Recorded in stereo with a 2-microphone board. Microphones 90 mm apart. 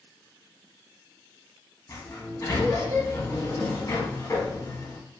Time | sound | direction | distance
1.9 | a sliding door | 40° left (ahead or behind) | 0.9 m